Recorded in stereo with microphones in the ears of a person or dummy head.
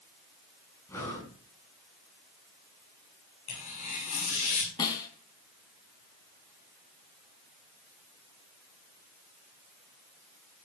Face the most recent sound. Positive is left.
turn(degrees=25)  # may be behind; listen again after turning